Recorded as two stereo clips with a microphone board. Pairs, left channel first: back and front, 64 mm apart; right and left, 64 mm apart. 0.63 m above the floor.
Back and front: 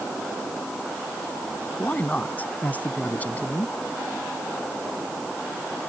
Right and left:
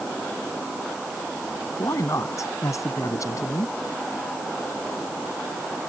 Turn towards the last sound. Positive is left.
turn(degrees=-120)